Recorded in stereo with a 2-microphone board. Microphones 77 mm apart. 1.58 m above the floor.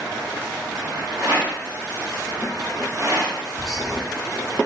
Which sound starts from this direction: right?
A rattle, at 1.2 s.